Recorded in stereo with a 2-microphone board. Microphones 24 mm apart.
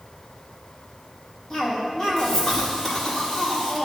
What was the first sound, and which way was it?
A cough, 20° left (ahead or behind).